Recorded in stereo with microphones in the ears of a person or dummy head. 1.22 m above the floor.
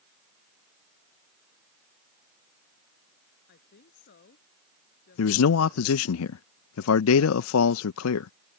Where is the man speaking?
80° left.